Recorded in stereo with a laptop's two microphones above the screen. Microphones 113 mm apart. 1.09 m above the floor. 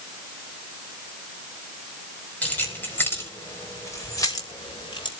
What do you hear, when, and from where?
2.4 s keys jangling: 15° left (ahead or behind), 4.5 m; by 5.1 s 50° left (ahead or behind), 3.5 m